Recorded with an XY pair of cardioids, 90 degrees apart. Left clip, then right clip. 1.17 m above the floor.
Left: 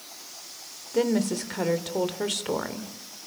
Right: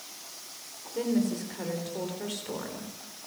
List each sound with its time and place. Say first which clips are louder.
0.9 s a woman speaking: left 5 dB; 65° left, 3.5 m